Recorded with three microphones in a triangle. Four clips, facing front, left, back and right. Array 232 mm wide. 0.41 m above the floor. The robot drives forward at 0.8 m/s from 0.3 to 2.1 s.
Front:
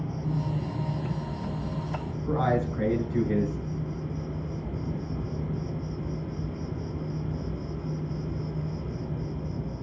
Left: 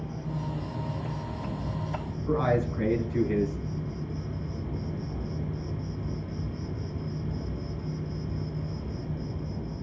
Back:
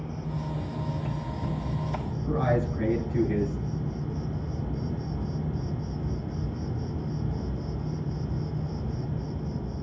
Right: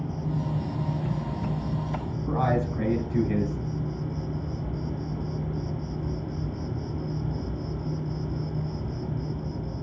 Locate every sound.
0.0 s an insect: 60° right, 1.4 m; by 9.8 s 125° right, 1.4 m
2.3 s a man speaking: 90° right, 4.5 m